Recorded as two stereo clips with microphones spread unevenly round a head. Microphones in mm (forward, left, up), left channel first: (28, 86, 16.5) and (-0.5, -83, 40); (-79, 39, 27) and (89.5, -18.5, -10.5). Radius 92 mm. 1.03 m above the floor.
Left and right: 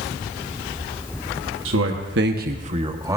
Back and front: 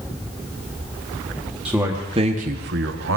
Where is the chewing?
I don't hear chewing.